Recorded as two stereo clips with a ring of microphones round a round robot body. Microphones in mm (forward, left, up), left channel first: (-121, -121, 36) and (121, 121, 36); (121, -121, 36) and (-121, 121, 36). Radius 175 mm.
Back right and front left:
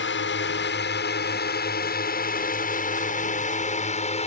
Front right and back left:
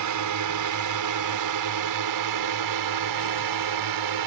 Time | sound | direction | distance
0.0 | a drone | 170° left | ?